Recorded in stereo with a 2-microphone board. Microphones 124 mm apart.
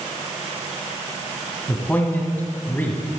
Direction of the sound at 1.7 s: 15° left (ahead or behind).